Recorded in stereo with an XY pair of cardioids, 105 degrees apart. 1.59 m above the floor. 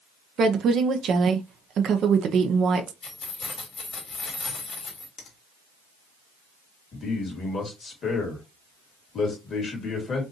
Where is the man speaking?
45° left, 2 m.